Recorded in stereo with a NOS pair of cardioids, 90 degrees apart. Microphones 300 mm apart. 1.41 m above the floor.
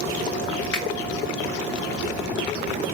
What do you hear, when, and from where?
0.7 s a finger snap: 40° left, 1.2 m